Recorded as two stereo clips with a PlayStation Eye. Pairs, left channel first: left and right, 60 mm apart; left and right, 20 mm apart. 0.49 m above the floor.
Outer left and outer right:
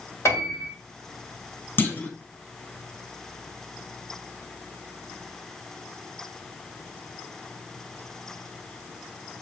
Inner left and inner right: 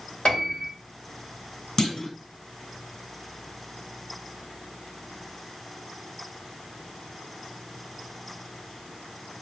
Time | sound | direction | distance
0.2 | a piano | 55° left (ahead or behind) | 2.5 m
1.8 | a clunk | 35° left (ahead or behind) | 0.8 m